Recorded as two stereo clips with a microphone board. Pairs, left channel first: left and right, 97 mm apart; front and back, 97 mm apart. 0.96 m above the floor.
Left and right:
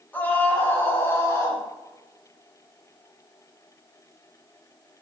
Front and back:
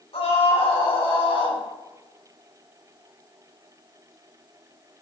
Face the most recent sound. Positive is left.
turn(degrees=35)